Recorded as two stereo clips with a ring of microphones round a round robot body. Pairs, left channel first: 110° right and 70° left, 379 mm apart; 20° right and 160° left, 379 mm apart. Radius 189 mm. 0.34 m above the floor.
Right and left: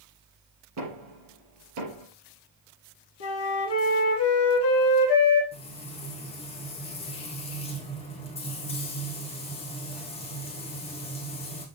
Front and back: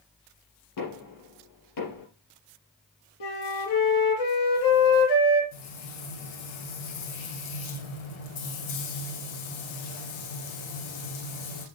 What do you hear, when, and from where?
0.8 s knocking: 20° left, 5.5 m
3.2 s a flute: 55° right, 3 m
5.5 s frying: 35° right, 4 m